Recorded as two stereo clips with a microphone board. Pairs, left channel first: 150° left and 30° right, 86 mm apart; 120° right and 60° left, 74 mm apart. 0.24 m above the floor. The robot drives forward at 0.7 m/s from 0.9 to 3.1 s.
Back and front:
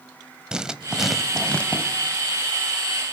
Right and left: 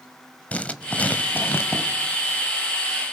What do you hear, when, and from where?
0.5 s writing: 95° right, 1.0 m; by 1.8 s 150° right, 1.2 m